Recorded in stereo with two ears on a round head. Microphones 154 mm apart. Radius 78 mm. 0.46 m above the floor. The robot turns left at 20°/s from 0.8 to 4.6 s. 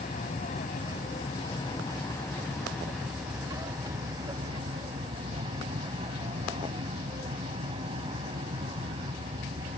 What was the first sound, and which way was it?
An aircraft, 45° left.